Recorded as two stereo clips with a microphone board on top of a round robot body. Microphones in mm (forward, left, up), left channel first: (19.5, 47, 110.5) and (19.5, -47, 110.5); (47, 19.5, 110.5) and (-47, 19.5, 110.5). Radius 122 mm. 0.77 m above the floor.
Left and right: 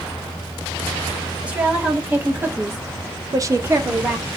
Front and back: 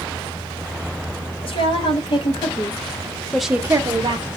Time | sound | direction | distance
1.4 | a woman speaking | 15° right | 1.9 m